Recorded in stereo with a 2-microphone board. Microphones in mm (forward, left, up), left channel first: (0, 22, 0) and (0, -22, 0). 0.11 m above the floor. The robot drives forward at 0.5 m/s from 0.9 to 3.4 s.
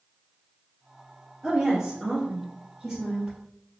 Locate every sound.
1.4 s a woman speaking: 10° right (ahead or behind), 1.8 m; by 3.4 s 5° right (ahead or behind), 2.5 m